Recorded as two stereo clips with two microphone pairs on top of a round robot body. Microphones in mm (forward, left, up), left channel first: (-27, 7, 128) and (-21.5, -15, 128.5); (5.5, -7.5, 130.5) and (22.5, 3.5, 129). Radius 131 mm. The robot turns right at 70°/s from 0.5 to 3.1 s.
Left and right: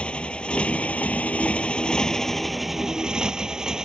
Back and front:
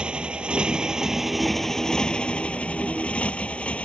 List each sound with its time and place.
0.0 s a motorcycle: 70° left; by 3.9 s 140° right